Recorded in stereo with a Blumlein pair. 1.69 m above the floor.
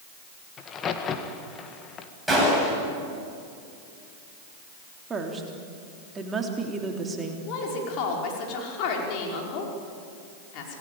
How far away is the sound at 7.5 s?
About 5.5 m.